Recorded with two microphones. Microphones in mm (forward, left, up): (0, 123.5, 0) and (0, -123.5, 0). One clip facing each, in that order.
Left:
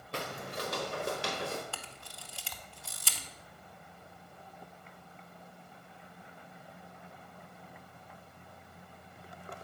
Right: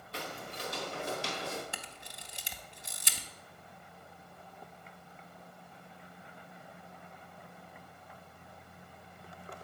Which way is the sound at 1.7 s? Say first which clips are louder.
Even; 20° right (ahead or behind).